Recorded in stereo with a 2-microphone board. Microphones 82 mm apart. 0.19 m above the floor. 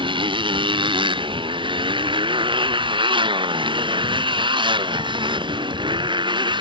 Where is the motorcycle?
85° right; by 6.6 s 70° right (ahead or behind).